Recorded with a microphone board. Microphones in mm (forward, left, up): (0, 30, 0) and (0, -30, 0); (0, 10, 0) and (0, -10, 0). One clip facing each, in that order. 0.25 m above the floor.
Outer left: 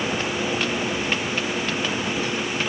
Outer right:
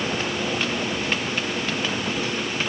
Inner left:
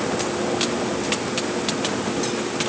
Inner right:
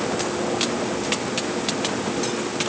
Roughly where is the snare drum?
I don't hear a snare drum.